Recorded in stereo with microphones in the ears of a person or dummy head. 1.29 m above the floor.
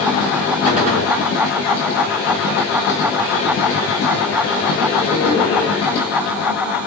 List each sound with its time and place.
0.7 s a gunshot: 40° right (ahead or behind), 3.5 m